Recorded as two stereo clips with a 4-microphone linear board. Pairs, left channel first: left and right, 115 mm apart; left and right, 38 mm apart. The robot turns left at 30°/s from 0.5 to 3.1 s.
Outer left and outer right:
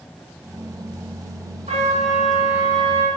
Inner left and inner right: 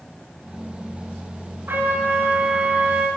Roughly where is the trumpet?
Right.